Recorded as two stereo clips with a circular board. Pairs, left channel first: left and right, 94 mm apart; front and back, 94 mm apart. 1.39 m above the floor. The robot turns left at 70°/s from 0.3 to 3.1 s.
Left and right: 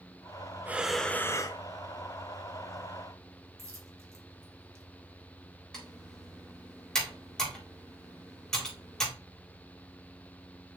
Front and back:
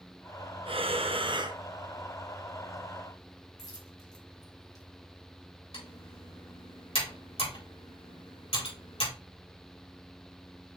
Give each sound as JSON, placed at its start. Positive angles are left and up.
{"t": 0.7, "sound": "breathing", "azimuth_deg": -160, "distance_m": 0.7}
{"t": 3.6, "sound": "a dropped coin", "azimuth_deg": -35, "distance_m": 1.7}
{"t": 5.7, "sound": "typing on a keyboard", "azimuth_deg": 5, "distance_m": 4.0}